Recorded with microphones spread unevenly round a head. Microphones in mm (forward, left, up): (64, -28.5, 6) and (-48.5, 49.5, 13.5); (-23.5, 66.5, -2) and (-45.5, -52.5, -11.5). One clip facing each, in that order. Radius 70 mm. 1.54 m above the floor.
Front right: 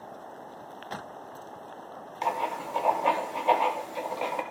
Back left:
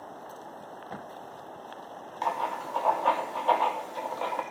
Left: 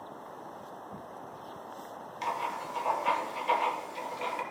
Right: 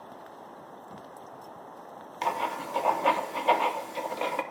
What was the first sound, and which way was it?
Writing, 110° right.